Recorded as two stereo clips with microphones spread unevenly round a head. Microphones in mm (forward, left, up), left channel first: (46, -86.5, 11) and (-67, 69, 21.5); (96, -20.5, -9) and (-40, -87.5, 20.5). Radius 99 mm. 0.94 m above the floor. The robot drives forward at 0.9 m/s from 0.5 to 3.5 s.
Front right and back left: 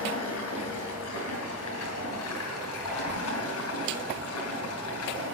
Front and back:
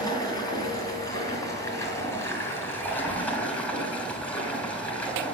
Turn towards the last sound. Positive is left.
turn(degrees=-55)